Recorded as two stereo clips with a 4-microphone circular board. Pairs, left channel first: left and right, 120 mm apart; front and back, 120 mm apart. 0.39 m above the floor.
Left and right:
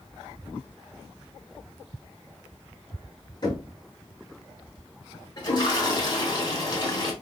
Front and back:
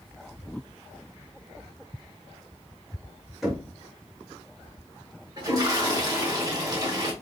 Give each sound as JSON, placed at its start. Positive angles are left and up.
{"t": 3.4, "sound": "knocking", "azimuth_deg": 90, "distance_m": 1.3}
{"t": 5.4, "sound": "a toilet flushing", "azimuth_deg": 130, "distance_m": 1.2}